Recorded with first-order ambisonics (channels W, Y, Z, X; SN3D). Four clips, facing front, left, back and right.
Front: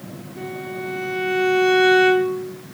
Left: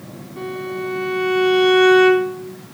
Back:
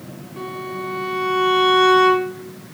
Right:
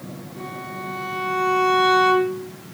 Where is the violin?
140° left, 3 m.